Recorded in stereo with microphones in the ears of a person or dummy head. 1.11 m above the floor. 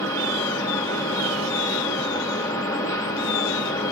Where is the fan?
15° left (ahead or behind), 1.5 m.